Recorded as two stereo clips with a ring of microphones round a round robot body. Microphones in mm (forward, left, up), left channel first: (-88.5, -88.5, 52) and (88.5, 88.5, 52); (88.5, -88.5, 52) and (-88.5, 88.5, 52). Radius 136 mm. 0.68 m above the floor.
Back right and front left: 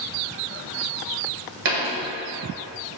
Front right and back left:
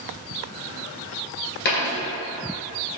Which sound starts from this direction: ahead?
A dropped coin, at 1.6 s.